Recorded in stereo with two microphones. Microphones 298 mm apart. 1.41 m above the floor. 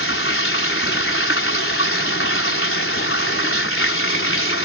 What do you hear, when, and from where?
0.0 s running water: 45° left (ahead or behind)